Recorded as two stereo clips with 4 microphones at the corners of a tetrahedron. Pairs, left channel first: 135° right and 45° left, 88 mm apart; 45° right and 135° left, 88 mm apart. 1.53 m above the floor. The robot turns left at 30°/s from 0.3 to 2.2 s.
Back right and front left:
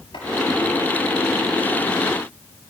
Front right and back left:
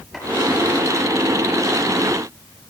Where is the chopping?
135° right, 8 m.